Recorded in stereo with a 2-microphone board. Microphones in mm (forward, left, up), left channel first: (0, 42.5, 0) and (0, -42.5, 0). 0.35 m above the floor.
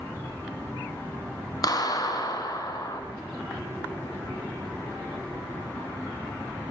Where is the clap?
50° left (ahead or behind), 3 m.